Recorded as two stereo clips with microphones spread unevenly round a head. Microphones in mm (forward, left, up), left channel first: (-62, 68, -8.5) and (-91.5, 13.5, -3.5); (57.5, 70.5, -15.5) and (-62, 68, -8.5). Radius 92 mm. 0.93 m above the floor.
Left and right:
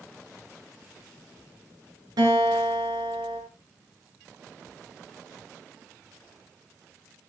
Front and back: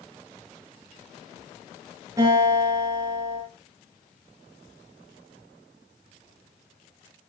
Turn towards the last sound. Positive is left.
turn(degrees=-105)